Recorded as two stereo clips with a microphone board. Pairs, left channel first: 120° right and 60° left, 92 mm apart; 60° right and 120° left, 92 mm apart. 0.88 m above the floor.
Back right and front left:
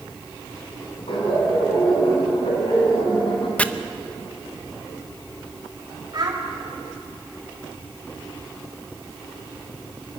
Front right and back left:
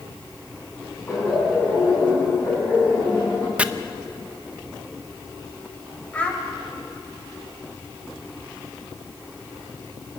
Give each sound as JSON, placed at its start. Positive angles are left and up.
{"t": 1.1, "sound": "laughter", "azimuth_deg": -120, "distance_m": 7.5}
{"t": 3.6, "sound": "chopping", "azimuth_deg": 180, "distance_m": 0.7}
{"t": 6.1, "sound": "a child speaking", "azimuth_deg": 15, "distance_m": 3.0}